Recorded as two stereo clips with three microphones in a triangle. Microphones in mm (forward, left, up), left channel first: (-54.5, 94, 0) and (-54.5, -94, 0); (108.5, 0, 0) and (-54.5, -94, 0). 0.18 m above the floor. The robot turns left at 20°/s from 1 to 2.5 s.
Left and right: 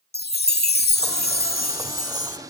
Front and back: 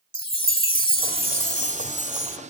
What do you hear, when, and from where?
0.1 s a chime: 85° left, 0.6 m; by 2.4 s 55° left, 0.6 m